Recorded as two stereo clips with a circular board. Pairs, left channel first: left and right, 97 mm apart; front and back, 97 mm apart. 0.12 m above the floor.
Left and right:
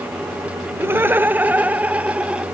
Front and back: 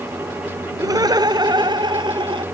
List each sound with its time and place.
0.8 s laughter: 145° right; by 2.5 s 165° right